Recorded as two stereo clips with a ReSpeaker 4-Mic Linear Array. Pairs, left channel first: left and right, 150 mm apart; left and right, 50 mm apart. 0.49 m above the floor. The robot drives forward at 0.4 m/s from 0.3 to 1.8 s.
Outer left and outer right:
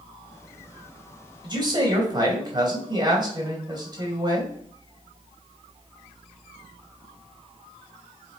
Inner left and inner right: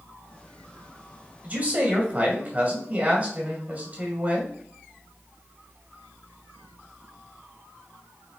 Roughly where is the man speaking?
Right.